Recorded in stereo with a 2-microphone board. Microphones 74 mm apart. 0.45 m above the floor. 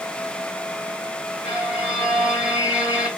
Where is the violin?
20° right (ahead or behind), 1.8 m.